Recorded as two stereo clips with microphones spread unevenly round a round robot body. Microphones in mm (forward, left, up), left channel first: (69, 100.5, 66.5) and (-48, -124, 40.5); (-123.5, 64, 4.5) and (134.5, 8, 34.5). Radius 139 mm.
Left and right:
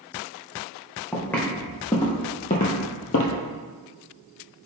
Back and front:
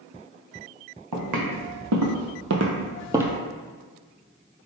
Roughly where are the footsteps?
Ahead.